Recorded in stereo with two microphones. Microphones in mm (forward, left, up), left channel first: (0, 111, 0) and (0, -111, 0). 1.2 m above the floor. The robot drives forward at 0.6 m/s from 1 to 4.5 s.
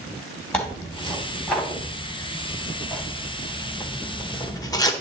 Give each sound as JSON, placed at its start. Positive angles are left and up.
{"t": 0.5, "sound": "tearing paper", "side_deg": 5, "distance_m": 3.0}